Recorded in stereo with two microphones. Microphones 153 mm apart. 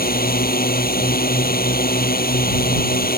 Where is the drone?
75° left (ahead or behind).